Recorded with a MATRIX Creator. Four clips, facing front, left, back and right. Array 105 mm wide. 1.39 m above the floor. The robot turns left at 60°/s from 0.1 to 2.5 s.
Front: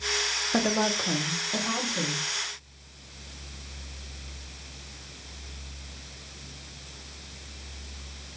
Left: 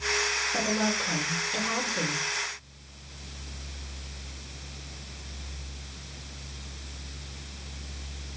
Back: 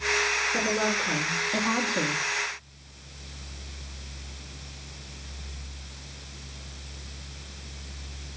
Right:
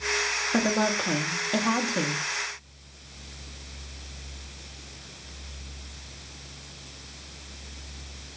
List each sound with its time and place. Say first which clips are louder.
0.5 s a woman speaking: right 5 dB, front 3 dB; 30° right, 0.9 m; by 2.2 s 135° right, 0.9 m